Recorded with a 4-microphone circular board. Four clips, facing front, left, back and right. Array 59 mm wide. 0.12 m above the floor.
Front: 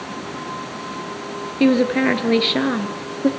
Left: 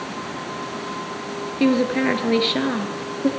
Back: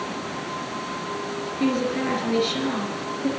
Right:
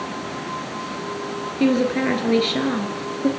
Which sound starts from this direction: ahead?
A woman speaking, at 1.6 s.